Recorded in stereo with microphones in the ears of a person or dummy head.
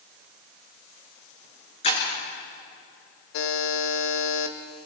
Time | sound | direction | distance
1.8 | breaking glass | 35° left (ahead or behind) | 9.5 m
3.3 | a buzzer | 75° left (ahead or behind) | 1.7 m